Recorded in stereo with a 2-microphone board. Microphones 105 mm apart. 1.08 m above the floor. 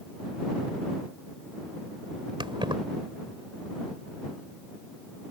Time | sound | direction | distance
2.4 | keys jangling | 50° right (ahead or behind) | ?